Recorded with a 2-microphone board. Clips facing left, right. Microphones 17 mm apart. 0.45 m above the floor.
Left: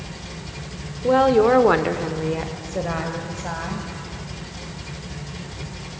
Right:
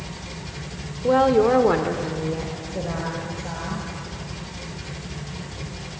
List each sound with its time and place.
1.0 s a woman speaking: 5° left (ahead or behind), 1.2 m; by 3.9 s 45° left (ahead or behind), 2.5 m